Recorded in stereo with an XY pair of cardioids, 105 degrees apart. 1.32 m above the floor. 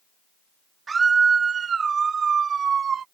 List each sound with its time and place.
0.9 s a scream: 35° right; by 3.0 s 55° right